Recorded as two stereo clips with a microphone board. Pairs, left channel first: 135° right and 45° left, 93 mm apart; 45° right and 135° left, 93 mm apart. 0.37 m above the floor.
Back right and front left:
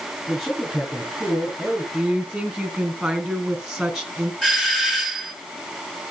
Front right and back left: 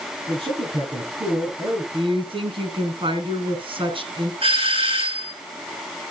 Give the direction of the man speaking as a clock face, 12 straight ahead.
7 o'clock.